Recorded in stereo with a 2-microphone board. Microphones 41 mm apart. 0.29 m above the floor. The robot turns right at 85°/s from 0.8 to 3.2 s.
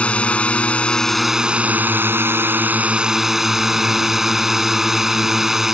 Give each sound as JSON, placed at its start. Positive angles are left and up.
{"t": 0.0, "sound": "a drone", "azimuth_deg": 145}